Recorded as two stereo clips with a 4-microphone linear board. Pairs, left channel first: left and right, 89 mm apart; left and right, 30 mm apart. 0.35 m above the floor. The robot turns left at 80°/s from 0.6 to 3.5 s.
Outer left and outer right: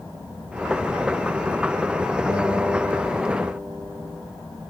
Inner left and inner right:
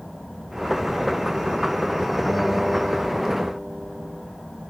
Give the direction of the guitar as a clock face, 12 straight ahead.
12 o'clock.